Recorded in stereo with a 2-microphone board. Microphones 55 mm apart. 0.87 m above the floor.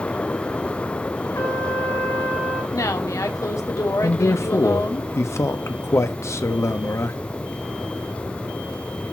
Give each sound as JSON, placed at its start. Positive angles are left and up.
{"t": 1.4, "sound": "a trumpet", "side_deg": 85, "distance_m": 3.5}
{"t": 2.7, "sound": "a woman speaking", "side_deg": 80, "distance_m": 1.8}
{"t": 4.0, "sound": "a man speaking", "side_deg": 60, "distance_m": 1.2}